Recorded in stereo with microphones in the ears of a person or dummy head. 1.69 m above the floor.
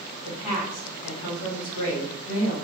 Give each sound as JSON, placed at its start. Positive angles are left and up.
{"t": 0.2, "sound": "a woman speaking", "side_deg": 45, "distance_m": 1.4}